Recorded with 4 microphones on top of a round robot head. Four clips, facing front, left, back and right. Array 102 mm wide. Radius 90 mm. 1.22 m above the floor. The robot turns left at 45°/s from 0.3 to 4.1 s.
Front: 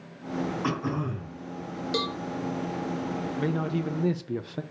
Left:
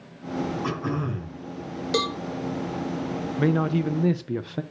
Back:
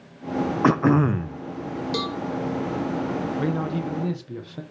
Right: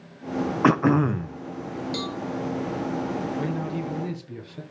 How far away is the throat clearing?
About 0.6 m.